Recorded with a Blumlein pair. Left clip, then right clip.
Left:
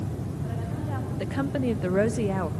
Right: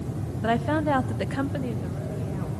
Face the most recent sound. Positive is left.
turn(degrees=60)